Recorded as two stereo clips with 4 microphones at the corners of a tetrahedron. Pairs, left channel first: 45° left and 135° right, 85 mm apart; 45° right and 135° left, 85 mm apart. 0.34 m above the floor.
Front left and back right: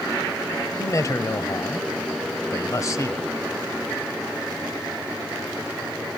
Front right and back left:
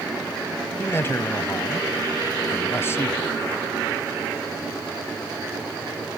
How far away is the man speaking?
About 1.5 m.